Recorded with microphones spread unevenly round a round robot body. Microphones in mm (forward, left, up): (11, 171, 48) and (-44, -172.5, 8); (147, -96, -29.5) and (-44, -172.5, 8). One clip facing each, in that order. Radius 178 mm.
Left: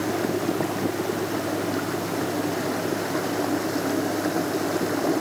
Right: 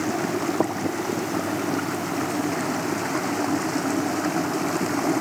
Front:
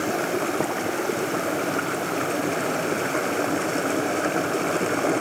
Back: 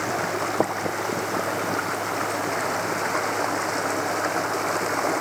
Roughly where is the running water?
Ahead right.